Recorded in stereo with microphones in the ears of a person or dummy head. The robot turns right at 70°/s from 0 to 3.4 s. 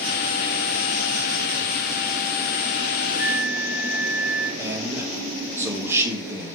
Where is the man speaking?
15° right (ahead or behind), 0.7 m.